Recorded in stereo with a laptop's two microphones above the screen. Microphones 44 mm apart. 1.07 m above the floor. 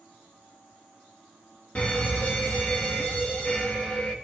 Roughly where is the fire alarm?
Left.